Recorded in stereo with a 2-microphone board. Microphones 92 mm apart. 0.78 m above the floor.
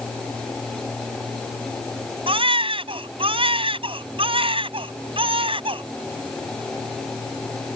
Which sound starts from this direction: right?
A baby crying, at 2.3 s.